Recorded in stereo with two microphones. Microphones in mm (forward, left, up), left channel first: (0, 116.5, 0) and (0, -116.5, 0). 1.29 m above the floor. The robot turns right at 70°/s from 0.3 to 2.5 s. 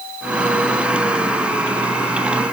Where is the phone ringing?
I don't hear a phone ringing.